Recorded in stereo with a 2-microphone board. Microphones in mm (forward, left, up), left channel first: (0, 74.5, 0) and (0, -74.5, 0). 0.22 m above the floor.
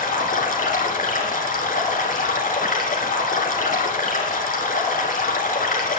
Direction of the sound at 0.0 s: 70° left (ahead or behind).